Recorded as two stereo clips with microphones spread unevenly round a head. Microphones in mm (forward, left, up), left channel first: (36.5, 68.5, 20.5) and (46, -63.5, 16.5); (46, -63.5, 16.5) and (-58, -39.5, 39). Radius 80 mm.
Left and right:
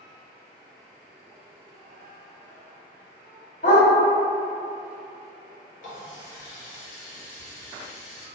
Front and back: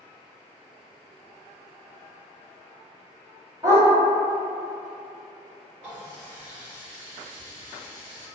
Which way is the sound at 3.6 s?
105° left.